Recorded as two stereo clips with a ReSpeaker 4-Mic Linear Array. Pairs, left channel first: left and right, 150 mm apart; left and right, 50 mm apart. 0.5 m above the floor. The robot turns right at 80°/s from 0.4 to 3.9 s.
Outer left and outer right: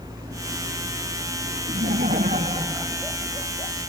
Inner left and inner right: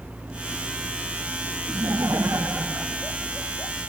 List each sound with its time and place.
1.7 s laughter: 115° right; by 3.7 s 50° left